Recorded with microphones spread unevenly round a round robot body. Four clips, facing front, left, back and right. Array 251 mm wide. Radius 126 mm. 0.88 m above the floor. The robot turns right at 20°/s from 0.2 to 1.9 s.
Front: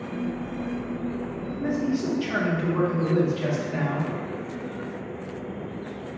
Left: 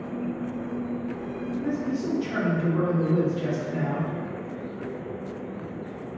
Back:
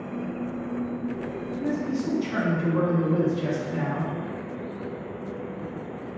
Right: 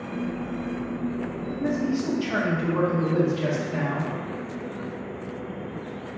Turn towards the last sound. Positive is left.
turn(degrees=-40)